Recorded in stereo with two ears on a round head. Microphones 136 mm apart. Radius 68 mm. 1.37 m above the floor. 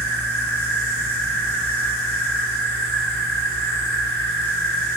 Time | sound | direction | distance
0.0 | an insect | 80° right | 2 m